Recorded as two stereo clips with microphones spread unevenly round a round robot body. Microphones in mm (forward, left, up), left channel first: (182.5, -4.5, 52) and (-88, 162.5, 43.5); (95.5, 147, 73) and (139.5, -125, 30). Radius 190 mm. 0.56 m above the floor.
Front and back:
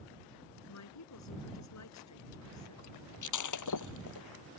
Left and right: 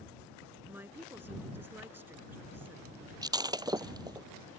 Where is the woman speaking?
5° left.